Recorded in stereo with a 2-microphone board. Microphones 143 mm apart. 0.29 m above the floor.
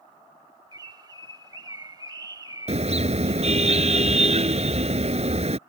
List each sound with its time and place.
0.7 s a bird: 30° right (ahead or behind)
2.7 s a car horn: 50° right (ahead or behind)